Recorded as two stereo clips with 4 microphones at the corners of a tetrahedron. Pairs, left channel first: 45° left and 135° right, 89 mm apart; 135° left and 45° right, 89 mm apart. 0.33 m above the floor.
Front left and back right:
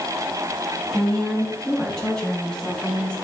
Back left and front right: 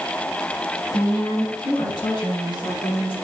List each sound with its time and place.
0.9 s a woman speaking: 135° left, 2.5 m; by 3.1 s 125° left, 4 m